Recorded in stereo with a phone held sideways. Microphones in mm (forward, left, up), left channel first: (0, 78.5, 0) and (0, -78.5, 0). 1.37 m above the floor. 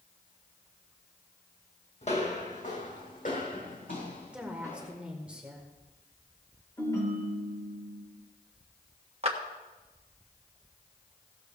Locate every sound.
2.0 s footsteps: 45° left (ahead or behind), 2.5 m; by 4.9 s 60° left (ahead or behind), 4.5 m
4.3 s a woman speaking: 10° right (ahead or behind), 1.6 m
6.8 s a ringtone: 20° left (ahead or behind), 4.5 m
9.2 s a clap: 40° right (ahead or behind), 1.3 m